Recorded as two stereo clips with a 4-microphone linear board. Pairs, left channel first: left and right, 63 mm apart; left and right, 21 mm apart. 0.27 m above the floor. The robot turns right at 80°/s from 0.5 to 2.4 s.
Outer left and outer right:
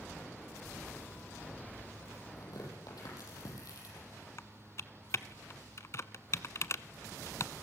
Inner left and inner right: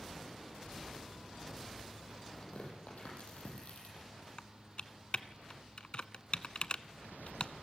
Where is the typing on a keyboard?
55° left (ahead or behind), 0.6 m.